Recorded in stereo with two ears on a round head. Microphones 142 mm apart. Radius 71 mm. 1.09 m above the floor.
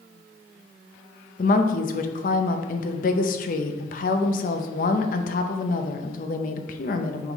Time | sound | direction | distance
1.4 | a woman speaking | 55° left (ahead or behind) | 0.7 m